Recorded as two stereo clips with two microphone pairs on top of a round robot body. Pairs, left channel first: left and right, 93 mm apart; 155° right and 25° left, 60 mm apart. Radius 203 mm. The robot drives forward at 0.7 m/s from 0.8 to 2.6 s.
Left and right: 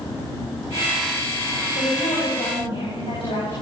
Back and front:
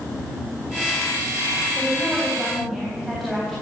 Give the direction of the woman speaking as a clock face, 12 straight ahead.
8 o'clock.